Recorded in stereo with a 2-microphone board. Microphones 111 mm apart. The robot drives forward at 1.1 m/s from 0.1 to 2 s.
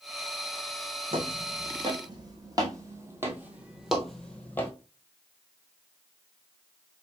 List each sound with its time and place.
1.1 s footsteps: 60° right (ahead or behind), 1.7 m; by 4.7 s 20° left (ahead or behind), 1.0 m